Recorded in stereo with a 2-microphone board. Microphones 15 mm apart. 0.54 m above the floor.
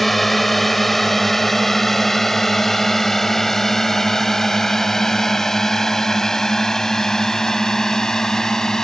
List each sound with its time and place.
0.0 s a drone: 5° left (ahead or behind); by 8.8 s 30° left (ahead or behind)